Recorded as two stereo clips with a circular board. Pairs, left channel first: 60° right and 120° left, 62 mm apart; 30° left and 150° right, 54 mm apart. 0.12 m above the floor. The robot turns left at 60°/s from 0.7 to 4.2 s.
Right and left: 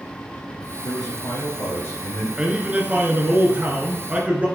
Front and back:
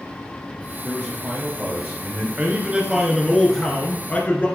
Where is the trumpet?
I don't hear a trumpet.